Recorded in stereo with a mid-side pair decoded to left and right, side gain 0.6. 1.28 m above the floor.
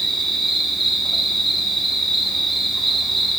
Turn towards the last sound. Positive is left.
turn(degrees=-10)